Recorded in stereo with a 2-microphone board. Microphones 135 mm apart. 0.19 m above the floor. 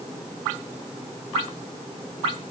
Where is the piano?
No piano in this recording.